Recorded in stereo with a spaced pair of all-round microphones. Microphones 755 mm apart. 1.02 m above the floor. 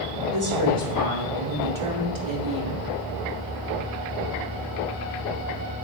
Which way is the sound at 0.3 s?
20° right (ahead or behind).